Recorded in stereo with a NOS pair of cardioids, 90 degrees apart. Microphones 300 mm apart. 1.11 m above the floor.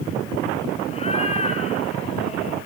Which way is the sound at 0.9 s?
20° left.